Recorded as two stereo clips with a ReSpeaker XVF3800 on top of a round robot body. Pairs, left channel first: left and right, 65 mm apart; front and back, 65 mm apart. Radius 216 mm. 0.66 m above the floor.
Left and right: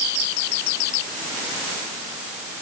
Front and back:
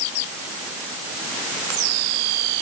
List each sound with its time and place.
Only background noise.